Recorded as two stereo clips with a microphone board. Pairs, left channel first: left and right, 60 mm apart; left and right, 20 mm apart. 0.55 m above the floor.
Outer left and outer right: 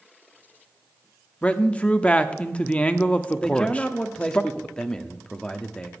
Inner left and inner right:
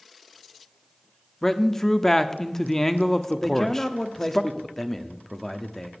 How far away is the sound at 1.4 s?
About 0.8 m.